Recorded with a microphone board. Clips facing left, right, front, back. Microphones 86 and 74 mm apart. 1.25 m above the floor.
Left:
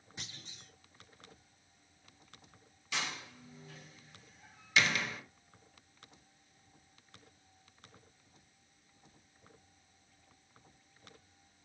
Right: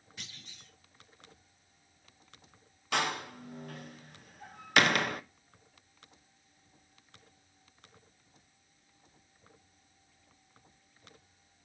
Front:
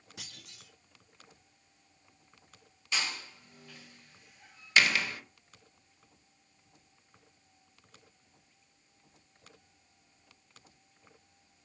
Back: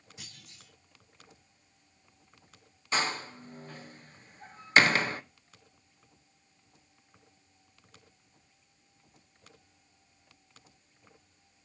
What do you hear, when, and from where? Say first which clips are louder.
0.2 s a clunk: left 1 dB, front 3 dB; 20° left, 3.5 m
2.9 s a door slam: right 9 dB, back 6 dB; 125° right, 0.8 m